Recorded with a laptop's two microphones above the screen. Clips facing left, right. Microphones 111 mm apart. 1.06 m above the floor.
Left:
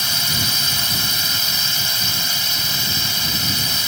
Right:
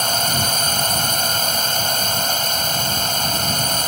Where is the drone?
50° right (ahead or behind).